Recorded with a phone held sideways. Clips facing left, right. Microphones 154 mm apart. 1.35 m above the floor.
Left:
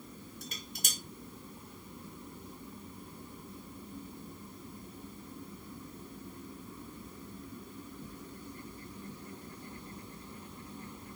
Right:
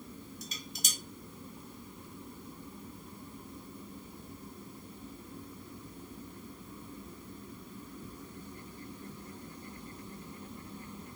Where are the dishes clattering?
55° left (ahead or behind), 0.9 m.